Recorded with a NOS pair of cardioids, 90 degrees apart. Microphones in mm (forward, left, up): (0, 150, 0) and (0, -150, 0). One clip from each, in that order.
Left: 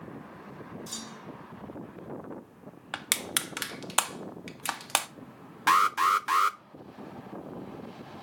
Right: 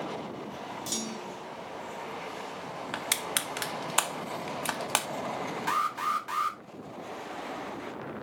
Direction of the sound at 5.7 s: 40° left.